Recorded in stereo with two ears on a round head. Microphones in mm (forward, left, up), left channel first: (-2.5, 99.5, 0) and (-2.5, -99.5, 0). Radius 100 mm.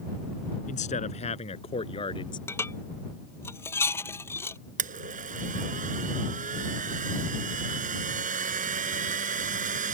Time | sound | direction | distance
0.7 | a man speaking | 35° left (ahead or behind) | ?
2.5 | dishes clattering | 10° left (ahead or behind) | ?
4.8 | a blender | 35° right (ahead or behind) | ?